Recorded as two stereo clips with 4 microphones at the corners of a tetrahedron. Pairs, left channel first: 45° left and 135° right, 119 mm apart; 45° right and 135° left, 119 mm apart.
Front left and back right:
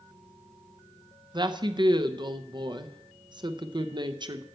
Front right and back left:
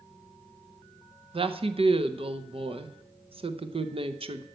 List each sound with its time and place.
1.3 s a woman speaking: 175° left, 0.7 m